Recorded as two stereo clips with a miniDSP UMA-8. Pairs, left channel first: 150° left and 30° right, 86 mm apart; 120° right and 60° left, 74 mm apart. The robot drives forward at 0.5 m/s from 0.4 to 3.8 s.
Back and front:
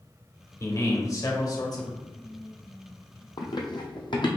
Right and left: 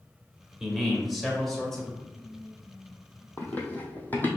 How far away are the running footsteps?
About 0.8 m.